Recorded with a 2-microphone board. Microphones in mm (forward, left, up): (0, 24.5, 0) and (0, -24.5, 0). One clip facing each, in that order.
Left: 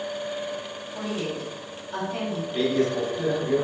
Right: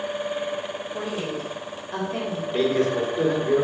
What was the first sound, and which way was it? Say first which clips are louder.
A woman speaking: left 1 dB; 50° right (ahead or behind).